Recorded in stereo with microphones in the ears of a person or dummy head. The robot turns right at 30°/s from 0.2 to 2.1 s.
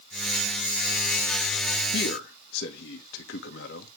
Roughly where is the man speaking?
Left.